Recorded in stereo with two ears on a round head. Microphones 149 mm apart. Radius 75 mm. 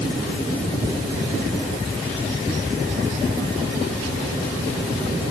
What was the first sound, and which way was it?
Only background noise.